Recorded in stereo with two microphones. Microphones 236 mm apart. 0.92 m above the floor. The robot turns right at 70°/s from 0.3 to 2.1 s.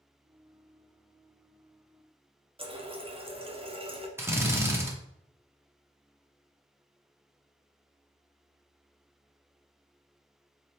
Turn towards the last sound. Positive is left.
turn(degrees=-10)  # may be behind; listen again after turning